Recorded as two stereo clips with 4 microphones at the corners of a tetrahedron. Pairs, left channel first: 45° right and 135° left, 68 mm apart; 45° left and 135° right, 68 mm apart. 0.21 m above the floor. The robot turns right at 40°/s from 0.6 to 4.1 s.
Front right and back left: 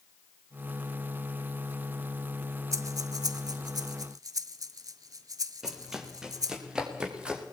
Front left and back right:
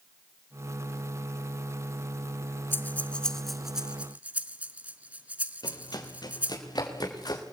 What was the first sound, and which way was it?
Breathing, 100° left.